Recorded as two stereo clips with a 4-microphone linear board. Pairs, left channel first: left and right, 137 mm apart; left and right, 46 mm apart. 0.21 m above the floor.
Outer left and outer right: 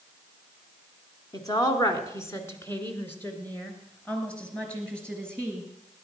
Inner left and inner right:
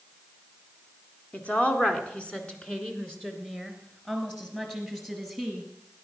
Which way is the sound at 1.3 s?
30° left (ahead or behind).